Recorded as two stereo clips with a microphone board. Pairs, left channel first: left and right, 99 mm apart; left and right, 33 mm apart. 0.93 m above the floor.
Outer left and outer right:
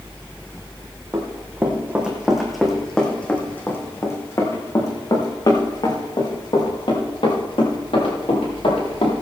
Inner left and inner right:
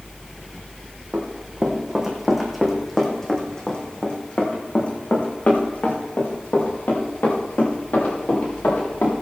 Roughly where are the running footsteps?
Right.